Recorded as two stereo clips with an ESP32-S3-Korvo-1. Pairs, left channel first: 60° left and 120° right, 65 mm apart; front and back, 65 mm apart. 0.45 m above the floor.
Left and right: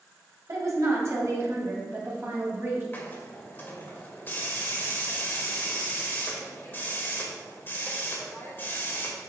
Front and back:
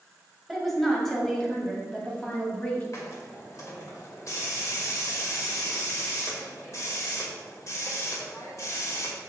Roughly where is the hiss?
Ahead.